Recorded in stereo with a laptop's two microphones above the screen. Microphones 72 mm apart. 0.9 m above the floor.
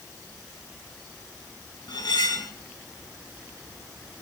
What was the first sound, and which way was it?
Cutlery clinking, 70° left (ahead or behind).